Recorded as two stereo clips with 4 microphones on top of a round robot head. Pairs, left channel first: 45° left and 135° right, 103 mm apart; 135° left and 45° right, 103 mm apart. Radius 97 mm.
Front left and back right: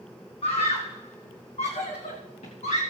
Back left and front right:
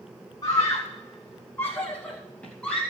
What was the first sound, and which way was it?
A scream, 80° left.